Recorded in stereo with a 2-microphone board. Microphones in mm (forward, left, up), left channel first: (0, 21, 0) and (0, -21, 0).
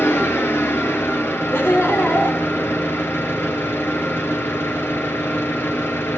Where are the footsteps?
No footsteps in this recording.